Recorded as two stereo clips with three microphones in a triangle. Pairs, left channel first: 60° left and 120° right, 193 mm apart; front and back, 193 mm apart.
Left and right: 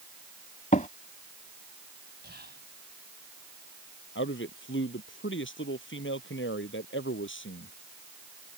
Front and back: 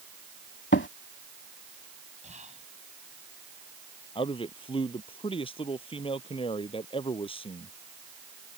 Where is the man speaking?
65° left.